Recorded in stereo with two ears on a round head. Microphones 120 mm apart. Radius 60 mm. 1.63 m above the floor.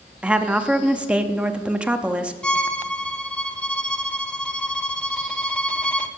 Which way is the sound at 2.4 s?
10° left (ahead or behind).